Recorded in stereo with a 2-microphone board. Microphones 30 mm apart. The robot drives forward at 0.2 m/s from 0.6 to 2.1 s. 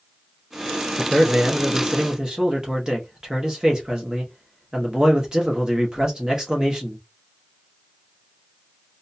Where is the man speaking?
30° right (ahead or behind), 0.6 m; by 7.0 s 25° right (ahead or behind), 0.8 m.